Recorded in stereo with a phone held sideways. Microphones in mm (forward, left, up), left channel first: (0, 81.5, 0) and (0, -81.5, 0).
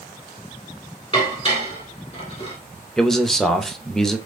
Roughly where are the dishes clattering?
Left.